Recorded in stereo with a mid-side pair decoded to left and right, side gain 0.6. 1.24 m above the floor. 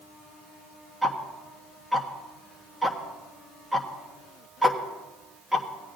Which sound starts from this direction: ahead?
Ticking, at 1.0 s.